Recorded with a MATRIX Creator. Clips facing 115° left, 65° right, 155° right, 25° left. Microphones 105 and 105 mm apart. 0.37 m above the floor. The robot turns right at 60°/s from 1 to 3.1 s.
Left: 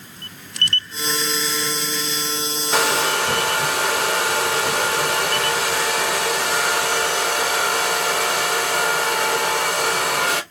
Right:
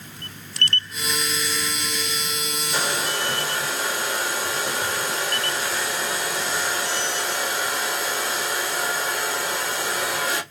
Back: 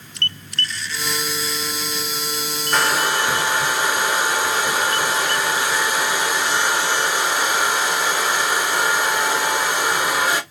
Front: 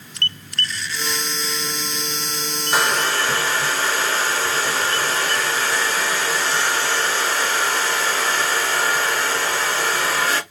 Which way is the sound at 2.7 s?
105° left.